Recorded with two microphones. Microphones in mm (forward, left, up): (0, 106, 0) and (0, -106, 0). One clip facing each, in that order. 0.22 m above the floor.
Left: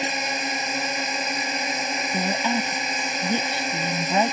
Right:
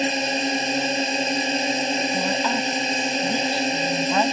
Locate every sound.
0.0 s a drone: 30° right (ahead or behind)
2.1 s a woman speaking: 20° left (ahead or behind)